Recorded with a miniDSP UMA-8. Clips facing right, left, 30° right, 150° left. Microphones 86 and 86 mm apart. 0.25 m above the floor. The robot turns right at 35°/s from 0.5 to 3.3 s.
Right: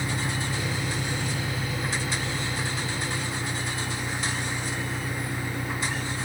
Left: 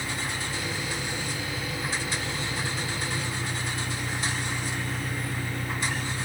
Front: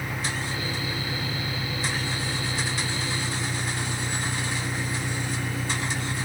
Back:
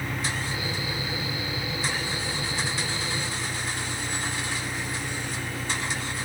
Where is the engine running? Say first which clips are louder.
Right 3 dB, even; 100° right; by 6.2 s 5° right.